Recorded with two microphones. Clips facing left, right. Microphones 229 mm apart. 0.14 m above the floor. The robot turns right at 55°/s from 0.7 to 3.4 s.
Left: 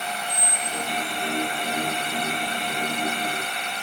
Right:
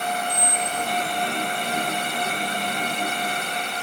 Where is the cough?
No cough in this recording.